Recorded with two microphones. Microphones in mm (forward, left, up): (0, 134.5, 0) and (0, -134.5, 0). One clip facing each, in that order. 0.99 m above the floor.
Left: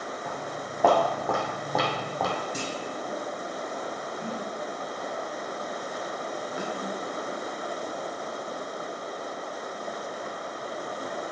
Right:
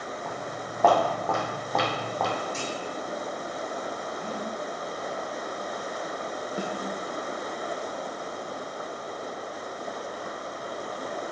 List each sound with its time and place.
0.2 s footsteps: 5° left (ahead or behind), 3 m
2.5 s a clunk: 40° left (ahead or behind), 1.1 m
4.2 s breathing: 75° left (ahead or behind), 2.5 m
6.6 s a snare drum: 40° right (ahead or behind), 0.8 m